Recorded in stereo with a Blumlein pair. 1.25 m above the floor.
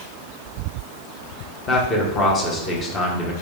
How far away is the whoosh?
I don't hear a whoosh.